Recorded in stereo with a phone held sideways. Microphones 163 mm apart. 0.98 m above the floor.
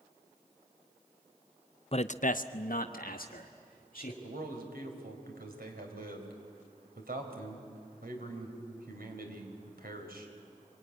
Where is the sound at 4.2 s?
85° right, 4 m.